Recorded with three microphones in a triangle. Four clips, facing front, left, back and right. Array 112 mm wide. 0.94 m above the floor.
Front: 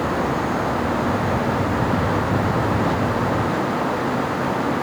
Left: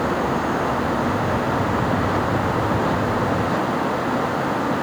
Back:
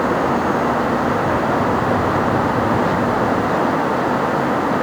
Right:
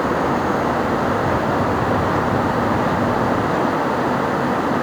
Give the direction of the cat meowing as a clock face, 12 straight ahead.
No cat meowing in this recording.